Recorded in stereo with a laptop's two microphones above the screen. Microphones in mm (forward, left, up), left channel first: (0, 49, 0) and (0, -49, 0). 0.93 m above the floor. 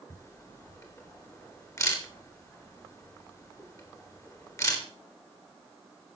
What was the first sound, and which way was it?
A camera shutter, 30° left (ahead or behind).